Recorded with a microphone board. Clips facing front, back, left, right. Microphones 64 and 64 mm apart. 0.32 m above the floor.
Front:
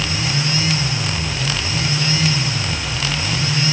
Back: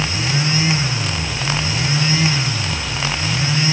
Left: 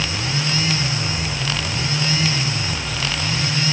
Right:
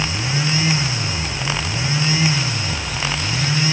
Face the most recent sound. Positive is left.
No sound to turn to.